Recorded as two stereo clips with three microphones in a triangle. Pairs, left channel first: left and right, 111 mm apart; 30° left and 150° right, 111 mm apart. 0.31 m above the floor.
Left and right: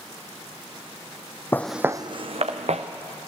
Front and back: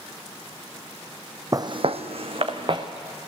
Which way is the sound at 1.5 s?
160° left.